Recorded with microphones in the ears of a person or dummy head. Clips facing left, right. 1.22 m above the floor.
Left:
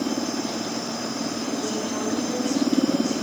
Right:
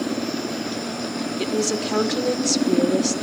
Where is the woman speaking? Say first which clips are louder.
Right 7 dB; 75° right (ahead or behind), 1.0 m.